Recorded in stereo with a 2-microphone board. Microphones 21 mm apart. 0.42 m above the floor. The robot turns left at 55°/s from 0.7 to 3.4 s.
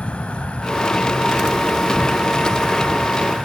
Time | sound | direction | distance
0.0 | an insect | 85° left | 1.1 m